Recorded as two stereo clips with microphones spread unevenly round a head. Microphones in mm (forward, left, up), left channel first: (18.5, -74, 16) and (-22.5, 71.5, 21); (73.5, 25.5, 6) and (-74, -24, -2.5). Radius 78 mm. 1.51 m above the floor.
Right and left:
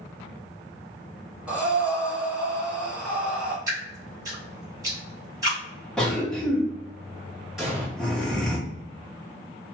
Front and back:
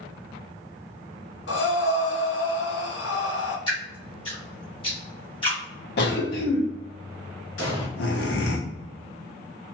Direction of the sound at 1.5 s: 25° left.